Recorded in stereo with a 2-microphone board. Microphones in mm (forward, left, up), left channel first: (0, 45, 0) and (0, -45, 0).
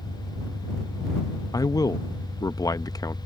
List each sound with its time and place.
0.0 s an engine running: 30° left (ahead or behind)
1.5 s a man speaking: 45° left (ahead or behind)